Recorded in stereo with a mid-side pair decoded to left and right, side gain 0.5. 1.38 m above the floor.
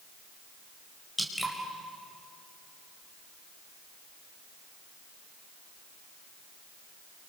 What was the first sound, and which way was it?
Dripping, 10° left.